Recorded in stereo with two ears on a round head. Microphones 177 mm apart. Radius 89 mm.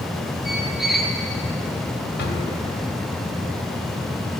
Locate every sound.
0.5 s a squeak: centre (ahead or behind), 1.0 m
2.2 s a drawer: 50° left (ahead or behind), 2 m